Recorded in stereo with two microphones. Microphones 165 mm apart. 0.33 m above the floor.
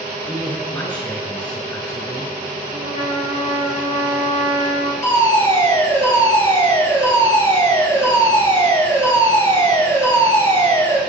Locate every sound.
0.2 s a man speaking: 10° left (ahead or behind), 7 m
2.7 s a trumpet: 30° right (ahead or behind), 2.5 m
5.0 s a fire alarm: 15° left (ahead or behind), 4.5 m